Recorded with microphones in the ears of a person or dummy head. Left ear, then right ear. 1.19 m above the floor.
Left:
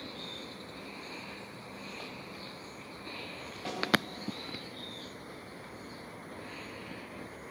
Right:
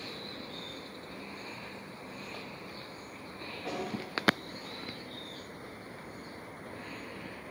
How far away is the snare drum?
About 3.5 m.